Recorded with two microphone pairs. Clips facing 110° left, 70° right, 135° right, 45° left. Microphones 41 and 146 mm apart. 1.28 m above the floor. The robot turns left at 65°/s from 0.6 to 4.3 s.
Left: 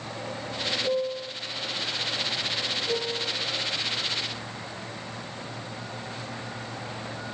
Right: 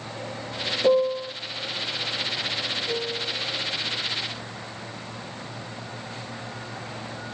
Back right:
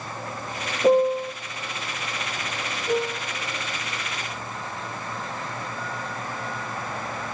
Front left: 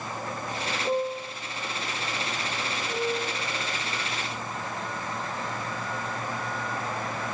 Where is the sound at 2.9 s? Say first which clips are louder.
Even, back right 4 dB; 165° right, 4 m; by 3.4 s 160° left, 4 m.